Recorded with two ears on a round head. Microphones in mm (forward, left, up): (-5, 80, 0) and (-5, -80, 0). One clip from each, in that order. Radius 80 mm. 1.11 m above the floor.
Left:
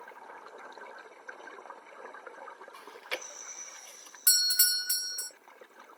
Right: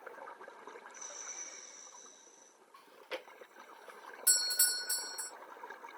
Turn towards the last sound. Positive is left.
turn(degrees=25)  # may be behind; listen again after turning